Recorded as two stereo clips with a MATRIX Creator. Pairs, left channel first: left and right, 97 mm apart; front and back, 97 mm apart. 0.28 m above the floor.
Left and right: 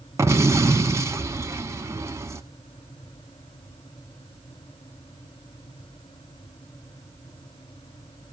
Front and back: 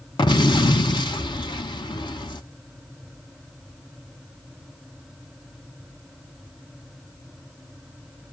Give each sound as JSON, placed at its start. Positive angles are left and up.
{"t": 0.2, "sound": "an explosion", "azimuth_deg": -30, "distance_m": 0.9}